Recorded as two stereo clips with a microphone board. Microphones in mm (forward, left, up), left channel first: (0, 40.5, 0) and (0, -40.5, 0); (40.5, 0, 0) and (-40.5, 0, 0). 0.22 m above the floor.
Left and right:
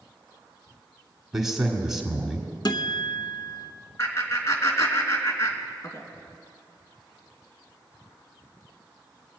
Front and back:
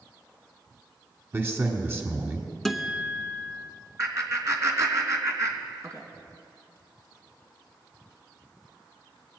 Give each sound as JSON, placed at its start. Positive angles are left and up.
{"t": 1.3, "sound": "a man speaking", "azimuth_deg": -170, "distance_m": 1.6}
{"t": 2.6, "sound": "a guitar", "azimuth_deg": 85, "distance_m": 0.9}
{"t": 4.0, "sound": "laughter", "azimuth_deg": 135, "distance_m": 2.5}